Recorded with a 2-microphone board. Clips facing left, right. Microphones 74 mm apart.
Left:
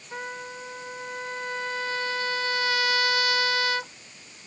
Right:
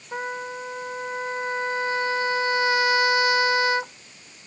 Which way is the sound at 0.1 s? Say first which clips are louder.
Right 5 dB; 25° right (ahead or behind).